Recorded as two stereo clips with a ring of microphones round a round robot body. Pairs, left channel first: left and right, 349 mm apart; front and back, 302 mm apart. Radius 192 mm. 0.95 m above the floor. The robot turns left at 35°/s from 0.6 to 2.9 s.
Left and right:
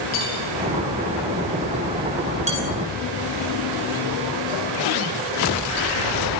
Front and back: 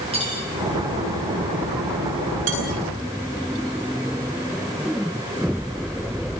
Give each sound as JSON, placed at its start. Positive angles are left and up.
{"t": 0.1, "sound": "cutlery clinking", "azimuth_deg": 110, "distance_m": 10.0}
{"t": 2.5, "sound": "dishes clattering", "azimuth_deg": -160, "distance_m": 9.5}